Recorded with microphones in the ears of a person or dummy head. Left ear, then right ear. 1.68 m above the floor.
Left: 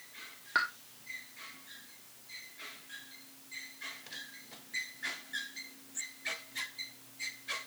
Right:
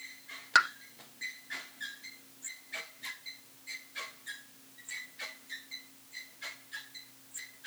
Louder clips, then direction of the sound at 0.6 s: Right 6 dB; 85° right.